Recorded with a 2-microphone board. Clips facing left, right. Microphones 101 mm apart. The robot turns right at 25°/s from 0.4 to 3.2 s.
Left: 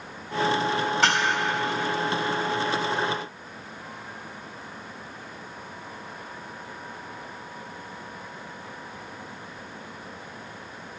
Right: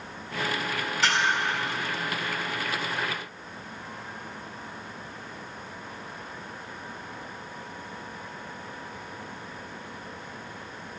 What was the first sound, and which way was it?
Dishes clattering, 50° left (ahead or behind).